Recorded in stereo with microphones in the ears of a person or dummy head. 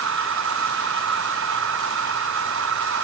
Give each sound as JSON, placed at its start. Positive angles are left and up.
{"t": 0.0, "sound": "a machine running", "side_deg": -65}